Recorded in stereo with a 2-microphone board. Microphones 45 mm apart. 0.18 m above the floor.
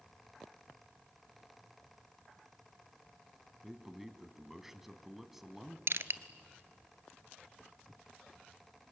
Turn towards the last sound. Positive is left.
turn(degrees=-70)  # may be behind; listen again after turning